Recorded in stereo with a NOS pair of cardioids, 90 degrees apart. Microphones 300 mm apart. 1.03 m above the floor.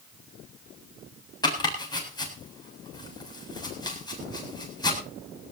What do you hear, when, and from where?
1.4 s chopping: 15° left, 7.5 m